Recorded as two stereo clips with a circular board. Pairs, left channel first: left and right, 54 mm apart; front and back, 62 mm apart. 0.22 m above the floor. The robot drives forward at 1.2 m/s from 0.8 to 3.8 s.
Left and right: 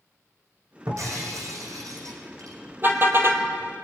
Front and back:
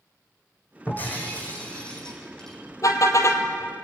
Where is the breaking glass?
65° right, 6 m; by 2.6 s 85° right, 5.5 m.